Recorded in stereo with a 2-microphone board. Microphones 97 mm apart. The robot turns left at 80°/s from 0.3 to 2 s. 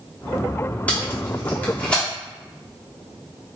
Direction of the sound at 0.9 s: 15° left (ahead or behind).